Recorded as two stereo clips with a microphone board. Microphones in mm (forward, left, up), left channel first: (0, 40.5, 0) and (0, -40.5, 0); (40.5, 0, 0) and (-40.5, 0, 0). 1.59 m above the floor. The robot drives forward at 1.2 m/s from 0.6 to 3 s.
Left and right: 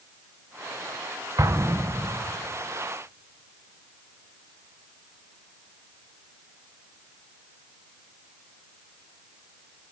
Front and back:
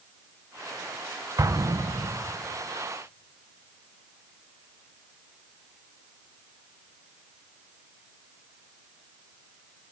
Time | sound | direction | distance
1.4 | an explosion | 135° right | 1.3 m